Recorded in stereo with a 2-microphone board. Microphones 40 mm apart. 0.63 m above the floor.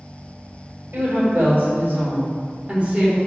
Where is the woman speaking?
65° right (ahead or behind), 1.7 m; by 3.2 s 30° right (ahead or behind), 1.6 m.